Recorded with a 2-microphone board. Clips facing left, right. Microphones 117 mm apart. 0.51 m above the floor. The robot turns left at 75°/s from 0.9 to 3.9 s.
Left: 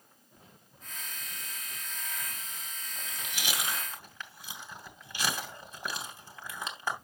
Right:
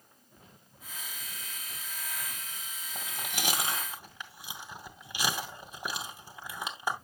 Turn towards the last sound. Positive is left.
turn(degrees=-15)  # may be behind; listen again after turning